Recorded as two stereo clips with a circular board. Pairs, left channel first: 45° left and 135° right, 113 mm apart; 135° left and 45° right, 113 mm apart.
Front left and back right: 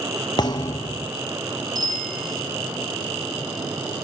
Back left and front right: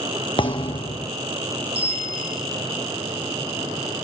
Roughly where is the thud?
Left.